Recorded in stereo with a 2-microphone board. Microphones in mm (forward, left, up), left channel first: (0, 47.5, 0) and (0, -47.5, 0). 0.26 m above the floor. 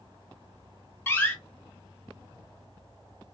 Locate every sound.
1.1 s a door slam: 25° left (ahead or behind), 1.3 m